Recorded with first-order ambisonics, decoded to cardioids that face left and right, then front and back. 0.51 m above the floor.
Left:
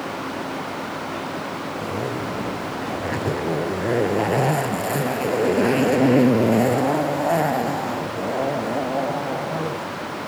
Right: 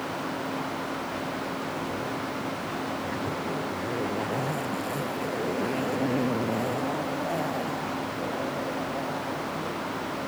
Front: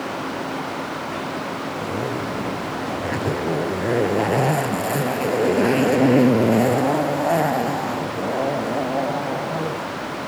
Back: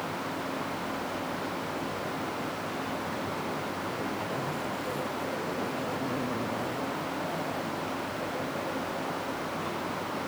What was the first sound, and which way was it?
A zipper, 35° left.